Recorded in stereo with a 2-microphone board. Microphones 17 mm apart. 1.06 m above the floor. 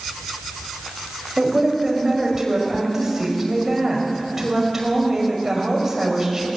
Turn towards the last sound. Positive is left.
turn(degrees=-20)  # may be behind; listen again after turning